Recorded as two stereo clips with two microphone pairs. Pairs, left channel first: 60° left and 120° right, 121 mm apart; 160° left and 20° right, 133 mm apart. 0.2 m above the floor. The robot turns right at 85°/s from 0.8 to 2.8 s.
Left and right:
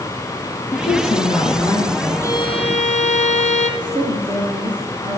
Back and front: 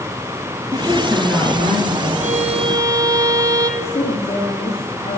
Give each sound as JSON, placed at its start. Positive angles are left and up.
{"t": 0.7, "sound": "a woman speaking", "azimuth_deg": 35, "distance_m": 4.0}
{"t": 2.2, "sound": "a violin", "azimuth_deg": -10, "distance_m": 1.8}
{"t": 3.8, "sound": "a woman speaking", "azimuth_deg": -170, "distance_m": 4.0}